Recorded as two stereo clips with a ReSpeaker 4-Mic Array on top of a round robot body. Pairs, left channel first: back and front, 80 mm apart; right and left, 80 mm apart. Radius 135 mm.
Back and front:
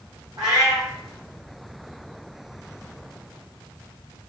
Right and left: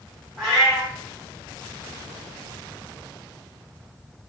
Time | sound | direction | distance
0.4 | a cat meowing | 35° right | 0.7 m